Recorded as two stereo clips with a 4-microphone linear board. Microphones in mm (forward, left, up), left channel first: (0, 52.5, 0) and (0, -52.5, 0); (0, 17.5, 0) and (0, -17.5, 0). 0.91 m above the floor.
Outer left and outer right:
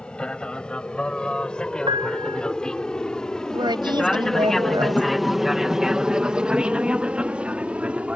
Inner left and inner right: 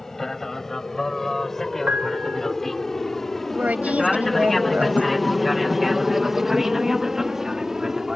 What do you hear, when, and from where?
0.0 s an aircraft: 10° left (ahead or behind); by 8.2 s 10° right (ahead or behind)
1.9 s a piano: 55° right (ahead or behind)
3.5 s a woman speaking: 45° right (ahead or behind)